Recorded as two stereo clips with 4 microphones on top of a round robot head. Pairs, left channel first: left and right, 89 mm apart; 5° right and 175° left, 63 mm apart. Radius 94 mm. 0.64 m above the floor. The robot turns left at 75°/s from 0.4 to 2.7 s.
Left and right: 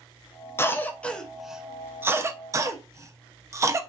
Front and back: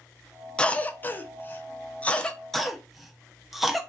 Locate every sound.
0.6 s a cough: 60° left, 0.5 m; by 3.8 s 100° right, 0.5 m